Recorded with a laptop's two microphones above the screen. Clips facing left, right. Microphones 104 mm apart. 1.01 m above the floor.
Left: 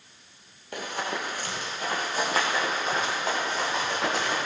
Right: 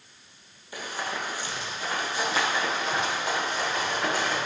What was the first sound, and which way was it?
Running footsteps, 60° left (ahead or behind).